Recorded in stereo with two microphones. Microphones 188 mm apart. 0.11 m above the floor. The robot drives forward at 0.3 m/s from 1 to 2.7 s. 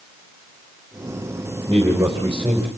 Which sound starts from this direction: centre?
A man speaking, at 1.7 s.